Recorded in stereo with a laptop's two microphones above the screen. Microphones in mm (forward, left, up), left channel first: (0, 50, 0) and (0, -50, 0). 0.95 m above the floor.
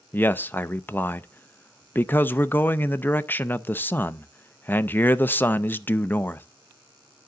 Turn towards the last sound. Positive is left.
turn(degrees=20)  # may be behind; listen again after turning